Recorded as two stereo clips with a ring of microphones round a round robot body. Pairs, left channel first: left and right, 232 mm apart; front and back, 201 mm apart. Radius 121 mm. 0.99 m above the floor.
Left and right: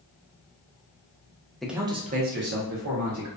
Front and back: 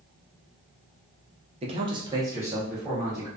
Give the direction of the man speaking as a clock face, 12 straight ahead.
6 o'clock.